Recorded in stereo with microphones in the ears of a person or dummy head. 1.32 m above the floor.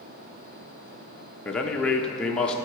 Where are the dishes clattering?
No dishes clattering in this recording.